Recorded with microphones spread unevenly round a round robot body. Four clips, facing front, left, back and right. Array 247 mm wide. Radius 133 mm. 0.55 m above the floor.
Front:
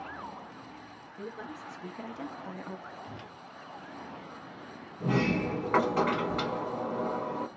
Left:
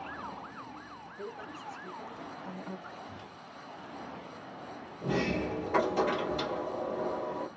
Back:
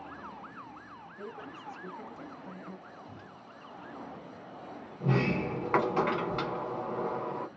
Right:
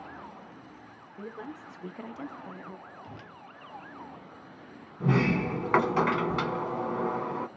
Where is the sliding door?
70° right, 0.8 m.